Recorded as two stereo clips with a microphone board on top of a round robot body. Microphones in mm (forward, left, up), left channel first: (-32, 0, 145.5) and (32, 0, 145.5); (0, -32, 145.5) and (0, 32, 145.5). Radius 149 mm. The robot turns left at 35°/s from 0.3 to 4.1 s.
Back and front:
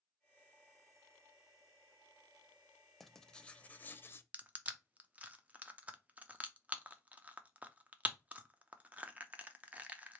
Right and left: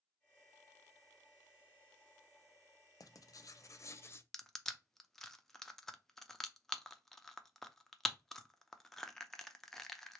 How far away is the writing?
About 0.6 m.